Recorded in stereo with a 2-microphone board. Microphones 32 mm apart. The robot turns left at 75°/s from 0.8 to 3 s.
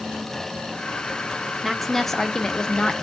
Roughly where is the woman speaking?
Centre.